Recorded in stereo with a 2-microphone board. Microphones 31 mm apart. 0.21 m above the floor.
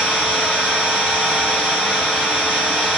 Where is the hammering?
I don't hear hammering.